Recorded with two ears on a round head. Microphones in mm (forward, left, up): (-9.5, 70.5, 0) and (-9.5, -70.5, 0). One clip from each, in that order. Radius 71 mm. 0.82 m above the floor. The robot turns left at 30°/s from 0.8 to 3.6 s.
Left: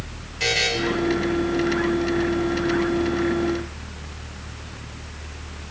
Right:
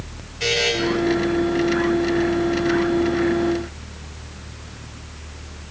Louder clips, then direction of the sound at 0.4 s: Right 1 dB; 25° left (ahead or behind).